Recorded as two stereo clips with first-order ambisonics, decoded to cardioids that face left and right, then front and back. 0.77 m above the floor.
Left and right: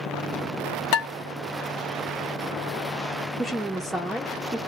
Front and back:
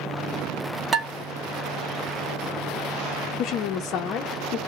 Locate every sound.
0.9 s dishes clattering: 110° left, 0.9 m
3.4 s a woman speaking: straight ahead, 0.5 m